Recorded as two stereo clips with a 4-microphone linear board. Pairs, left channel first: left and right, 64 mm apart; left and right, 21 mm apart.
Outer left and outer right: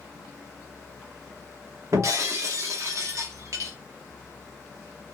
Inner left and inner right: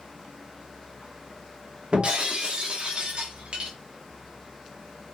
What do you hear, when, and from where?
1.9 s breaking glass: 55° right (ahead or behind), 3.5 m